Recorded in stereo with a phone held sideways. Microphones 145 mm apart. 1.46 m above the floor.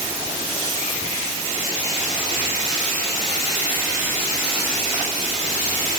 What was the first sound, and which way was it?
Only background noise.